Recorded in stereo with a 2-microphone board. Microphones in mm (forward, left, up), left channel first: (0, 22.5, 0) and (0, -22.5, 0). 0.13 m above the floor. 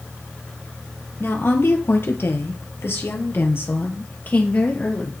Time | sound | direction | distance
1.2 | a woman speaking | 60° left (ahead or behind) | 3 m